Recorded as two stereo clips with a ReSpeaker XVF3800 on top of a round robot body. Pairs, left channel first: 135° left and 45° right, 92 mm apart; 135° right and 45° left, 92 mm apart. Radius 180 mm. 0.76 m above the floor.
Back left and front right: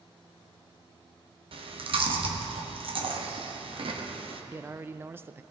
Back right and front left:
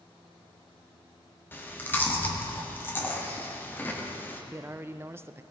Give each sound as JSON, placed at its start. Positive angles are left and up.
{"t": 1.5, "sound": "chewing", "azimuth_deg": -65, "distance_m": 1.5}
{"t": 4.5, "sound": "a man speaking", "azimuth_deg": 0, "distance_m": 0.7}